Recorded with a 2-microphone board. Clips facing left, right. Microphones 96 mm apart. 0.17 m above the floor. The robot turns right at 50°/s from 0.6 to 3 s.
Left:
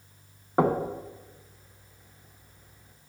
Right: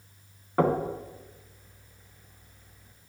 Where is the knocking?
20° left (ahead or behind), 0.8 m; by 0.9 s 25° left (ahead or behind), 0.8 m.